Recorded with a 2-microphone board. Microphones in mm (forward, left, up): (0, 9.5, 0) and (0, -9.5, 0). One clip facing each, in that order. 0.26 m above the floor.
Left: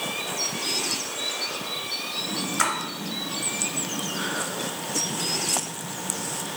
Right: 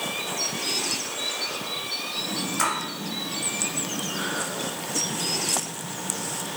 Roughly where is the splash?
Centre.